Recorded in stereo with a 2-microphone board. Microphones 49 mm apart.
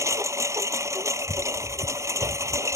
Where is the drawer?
No drawer in this recording.